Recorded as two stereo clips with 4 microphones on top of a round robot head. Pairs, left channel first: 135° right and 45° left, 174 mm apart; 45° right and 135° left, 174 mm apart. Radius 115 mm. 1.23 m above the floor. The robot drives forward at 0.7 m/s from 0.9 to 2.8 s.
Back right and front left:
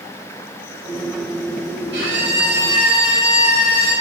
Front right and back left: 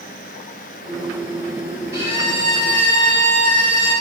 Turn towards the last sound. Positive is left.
turn(degrees=75)